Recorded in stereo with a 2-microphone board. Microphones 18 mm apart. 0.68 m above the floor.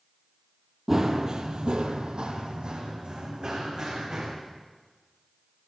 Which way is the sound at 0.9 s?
25° right (ahead or behind).